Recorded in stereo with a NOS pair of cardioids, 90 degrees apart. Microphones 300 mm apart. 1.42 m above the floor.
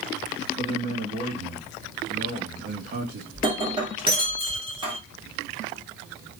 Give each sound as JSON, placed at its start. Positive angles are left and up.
{"t": 0.6, "sound": "a man speaking", "azimuth_deg": -35, "distance_m": 2.5}
{"t": 3.3, "sound": "breaking glass", "azimuth_deg": -15, "distance_m": 2.0}